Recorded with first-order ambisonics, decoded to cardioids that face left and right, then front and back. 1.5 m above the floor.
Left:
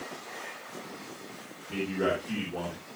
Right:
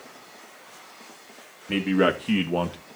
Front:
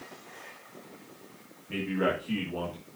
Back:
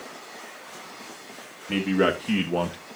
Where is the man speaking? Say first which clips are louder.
Right 7 dB, back 6 dB; 125° right, 2 m; by 2.8 s 135° right, 1.4 m.